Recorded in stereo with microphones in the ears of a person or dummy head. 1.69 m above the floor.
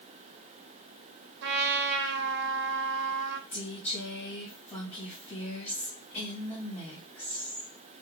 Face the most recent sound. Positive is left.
turn(degrees=10)  # may be behind; listen again after turning